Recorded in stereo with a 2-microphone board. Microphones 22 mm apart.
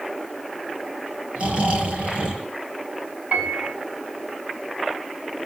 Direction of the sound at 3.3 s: 75° right (ahead or behind).